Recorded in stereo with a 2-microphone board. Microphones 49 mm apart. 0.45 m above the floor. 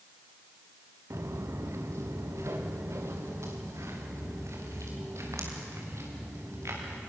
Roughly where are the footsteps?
Right.